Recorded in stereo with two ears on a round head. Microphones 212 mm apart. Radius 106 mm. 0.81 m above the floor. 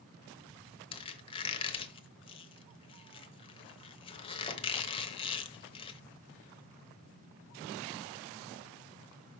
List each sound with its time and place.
0.9 s a squeak: 25° left (ahead or behind), 0.9 m